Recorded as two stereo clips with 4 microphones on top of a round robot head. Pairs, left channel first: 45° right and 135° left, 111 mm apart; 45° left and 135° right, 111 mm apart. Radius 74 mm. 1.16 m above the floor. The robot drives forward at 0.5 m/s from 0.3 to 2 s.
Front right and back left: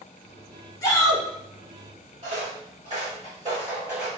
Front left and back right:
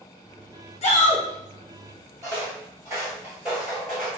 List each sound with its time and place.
0.8 s a shout: 15° left, 1.0 m; by 1.2 s 20° left, 0.8 m
2.2 s footsteps: 170° left, 1.6 m; by 4.1 s 90° left, 1.1 m